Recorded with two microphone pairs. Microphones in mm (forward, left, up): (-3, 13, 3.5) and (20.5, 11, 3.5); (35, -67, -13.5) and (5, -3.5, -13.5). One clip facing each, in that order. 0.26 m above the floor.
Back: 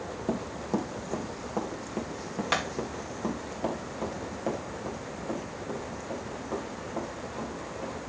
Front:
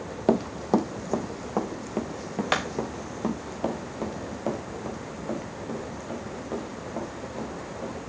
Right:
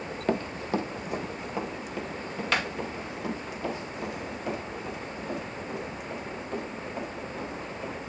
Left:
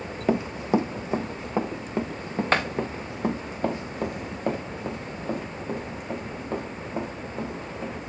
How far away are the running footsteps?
About 0.6 m.